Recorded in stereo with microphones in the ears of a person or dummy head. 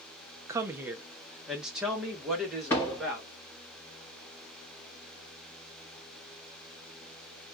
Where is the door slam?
15° left (ahead or behind), 1.8 m.